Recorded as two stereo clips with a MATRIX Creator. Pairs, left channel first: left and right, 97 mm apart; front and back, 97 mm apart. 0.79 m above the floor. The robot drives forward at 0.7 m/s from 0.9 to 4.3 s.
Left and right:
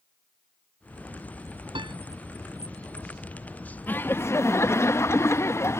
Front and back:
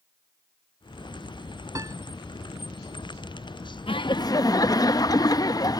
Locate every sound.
1.8 s a piano: 125° right
3.9 s laughter: 20° left; by 5.8 s 35° left